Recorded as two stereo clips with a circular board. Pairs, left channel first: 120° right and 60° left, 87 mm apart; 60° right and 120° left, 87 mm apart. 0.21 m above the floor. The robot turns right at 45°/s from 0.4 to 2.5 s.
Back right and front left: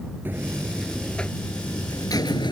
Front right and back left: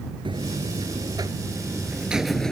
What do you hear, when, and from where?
0.2 s a buzzer: 125° left; by 2.5 s 140° right